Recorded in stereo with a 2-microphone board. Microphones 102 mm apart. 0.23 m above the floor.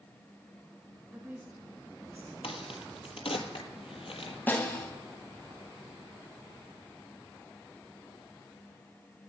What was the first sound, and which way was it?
A woman speaking, 20° right (ahead or behind).